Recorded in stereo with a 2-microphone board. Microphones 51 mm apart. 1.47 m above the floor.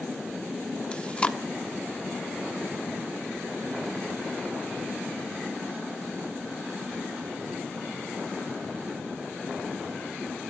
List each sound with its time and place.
0.9 s chewing: 25° left (ahead or behind), 1.2 m